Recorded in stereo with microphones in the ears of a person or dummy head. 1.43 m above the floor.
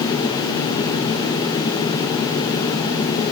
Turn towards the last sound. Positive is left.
No sound to turn to.